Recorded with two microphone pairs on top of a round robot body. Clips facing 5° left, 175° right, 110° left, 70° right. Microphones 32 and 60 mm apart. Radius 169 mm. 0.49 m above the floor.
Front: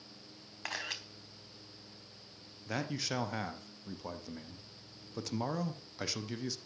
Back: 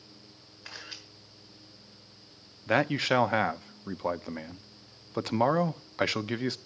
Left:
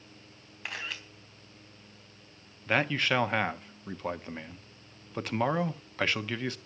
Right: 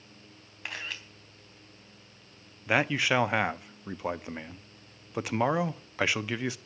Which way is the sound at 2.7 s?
160° right.